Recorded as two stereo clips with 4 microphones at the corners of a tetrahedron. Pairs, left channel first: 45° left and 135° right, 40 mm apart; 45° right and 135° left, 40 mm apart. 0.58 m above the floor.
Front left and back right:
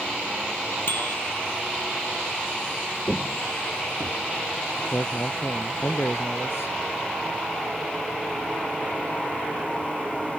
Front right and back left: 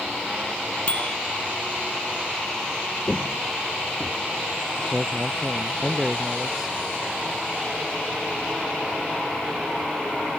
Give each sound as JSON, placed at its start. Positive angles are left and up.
{"t": 0.9, "sound": "a bicycle bell", "azimuth_deg": 10}
{"t": 3.1, "sound": "footsteps", "azimuth_deg": -5}
{"t": 4.8, "sound": "a man speaking", "azimuth_deg": 60}